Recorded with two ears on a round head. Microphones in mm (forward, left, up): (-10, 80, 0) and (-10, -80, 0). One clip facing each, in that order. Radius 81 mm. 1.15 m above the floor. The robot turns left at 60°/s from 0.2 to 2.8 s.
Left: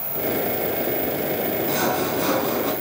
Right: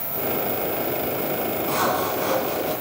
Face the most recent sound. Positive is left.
turn(degrees=105)